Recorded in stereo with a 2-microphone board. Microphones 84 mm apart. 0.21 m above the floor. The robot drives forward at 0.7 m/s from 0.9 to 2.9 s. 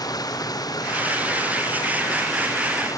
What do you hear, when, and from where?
0.0 s running water: 50° left (ahead or behind); by 3.0 s 45° left (ahead or behind)